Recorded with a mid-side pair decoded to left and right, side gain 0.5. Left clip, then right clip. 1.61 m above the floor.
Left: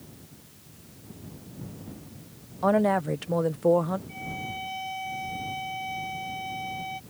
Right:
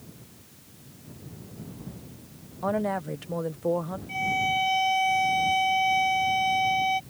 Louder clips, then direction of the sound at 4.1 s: Right 10 dB; 60° right.